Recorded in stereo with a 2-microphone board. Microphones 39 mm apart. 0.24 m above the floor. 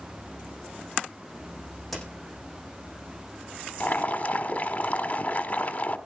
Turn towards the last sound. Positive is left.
turn(degrees=35)  # may be behind; listen again after turning